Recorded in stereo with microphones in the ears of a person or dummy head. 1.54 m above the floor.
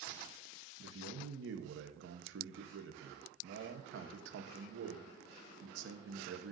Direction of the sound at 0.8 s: 75° right (ahead or behind).